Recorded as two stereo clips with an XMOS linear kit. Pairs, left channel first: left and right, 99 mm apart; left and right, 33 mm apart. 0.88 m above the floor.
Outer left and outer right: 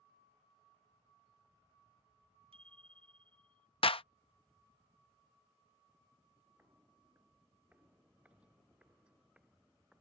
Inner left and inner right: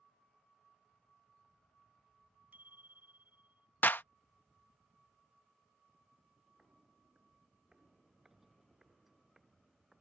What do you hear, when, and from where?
2.5 s a bicycle bell: 70° right (ahead or behind); by 3.7 s 60° right (ahead or behind)
3.8 s a clap: 65° left (ahead or behind)
6.6 s footsteps: 20° right (ahead or behind); by 10.0 s 5° right (ahead or behind)